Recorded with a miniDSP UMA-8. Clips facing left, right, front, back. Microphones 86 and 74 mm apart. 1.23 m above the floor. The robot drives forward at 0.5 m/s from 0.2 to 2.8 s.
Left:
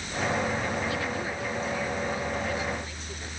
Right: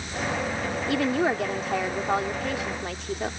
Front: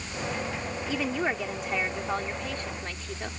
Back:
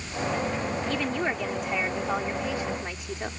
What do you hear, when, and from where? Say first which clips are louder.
0.9 s a woman speaking: right 7 dB, front 2 dB; 80° right; by 3.3 s 100° right